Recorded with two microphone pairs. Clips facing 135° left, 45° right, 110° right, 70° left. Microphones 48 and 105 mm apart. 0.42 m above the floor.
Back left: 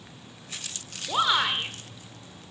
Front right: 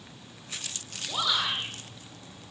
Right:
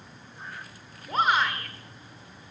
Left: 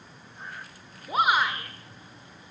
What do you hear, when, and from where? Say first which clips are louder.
1.1 s a shout: back left 5 dB, even; 135° left, 1.6 m